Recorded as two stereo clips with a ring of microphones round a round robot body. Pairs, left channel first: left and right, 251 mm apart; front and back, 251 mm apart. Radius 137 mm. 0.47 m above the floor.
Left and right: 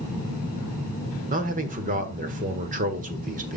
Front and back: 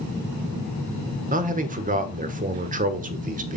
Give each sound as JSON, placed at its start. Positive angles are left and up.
{"t": 1.3, "sound": "a man speaking", "azimuth_deg": -135, "distance_m": 1.5}